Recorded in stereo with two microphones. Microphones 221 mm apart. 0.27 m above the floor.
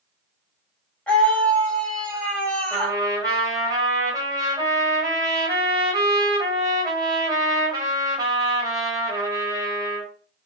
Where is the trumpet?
15° right (ahead or behind), 1.2 m.